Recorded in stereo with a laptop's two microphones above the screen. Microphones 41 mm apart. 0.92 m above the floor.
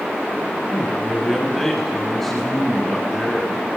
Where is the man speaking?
5° left (ahead or behind), 8 m.